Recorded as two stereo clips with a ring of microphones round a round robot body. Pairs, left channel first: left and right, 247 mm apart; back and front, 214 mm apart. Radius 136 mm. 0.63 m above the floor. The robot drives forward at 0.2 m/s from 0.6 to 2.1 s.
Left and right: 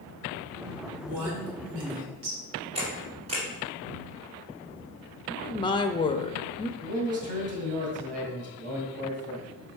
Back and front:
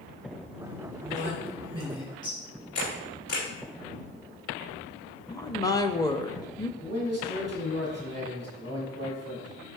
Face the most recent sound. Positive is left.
turn(degrees=-75)